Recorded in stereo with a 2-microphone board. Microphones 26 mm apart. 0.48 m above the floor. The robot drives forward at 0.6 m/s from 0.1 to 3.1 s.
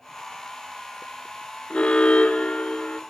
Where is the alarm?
45° left (ahead or behind), 1.2 m; by 3.0 s 50° left (ahead or behind), 1.0 m.